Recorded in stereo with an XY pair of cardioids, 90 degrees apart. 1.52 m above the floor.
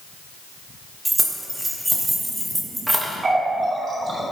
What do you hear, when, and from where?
1.1 s keys jangling: 5° right, 1.6 m
3.2 s a running tap: 40° right, 2 m